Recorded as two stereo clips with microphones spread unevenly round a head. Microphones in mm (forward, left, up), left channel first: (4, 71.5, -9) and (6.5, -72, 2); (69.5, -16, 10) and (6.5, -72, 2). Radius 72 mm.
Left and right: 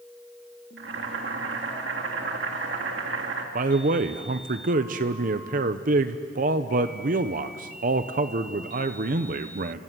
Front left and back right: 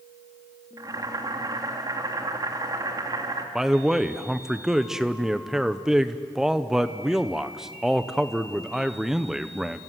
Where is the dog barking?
No dog barking in this recording.